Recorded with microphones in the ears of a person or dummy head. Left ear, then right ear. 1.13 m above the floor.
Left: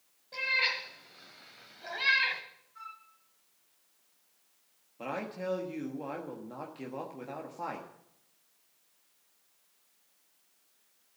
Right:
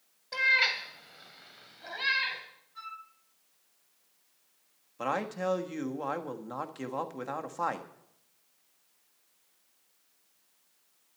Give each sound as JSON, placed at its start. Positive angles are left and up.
{"t": 0.3, "sound": "a cat meowing", "side_deg": -50, "distance_m": 1.7}
{"t": 2.8, "sound": "a flute", "side_deg": -25, "distance_m": 4.5}
{"t": 5.0, "sound": "a man speaking", "side_deg": -50, "distance_m": 1.3}